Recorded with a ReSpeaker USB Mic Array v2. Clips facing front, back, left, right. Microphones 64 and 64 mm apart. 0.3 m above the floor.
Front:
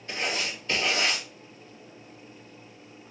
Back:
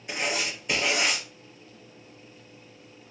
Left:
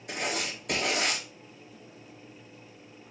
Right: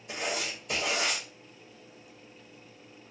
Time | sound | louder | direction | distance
0.1 | writing | back 1 dB, left 1 dB | 105° left | 1.4 m